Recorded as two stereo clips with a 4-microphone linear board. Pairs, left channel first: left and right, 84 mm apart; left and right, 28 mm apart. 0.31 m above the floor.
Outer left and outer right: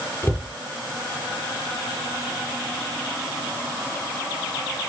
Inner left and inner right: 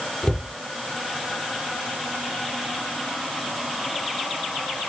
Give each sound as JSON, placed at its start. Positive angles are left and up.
{"t": 0.2, "sound": "a cupboard door", "side_deg": 25, "distance_m": 3.0}